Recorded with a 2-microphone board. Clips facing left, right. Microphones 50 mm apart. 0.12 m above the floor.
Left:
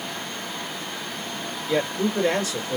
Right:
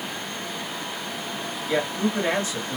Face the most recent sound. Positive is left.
turn(degrees=-20)  # may be behind; listen again after turning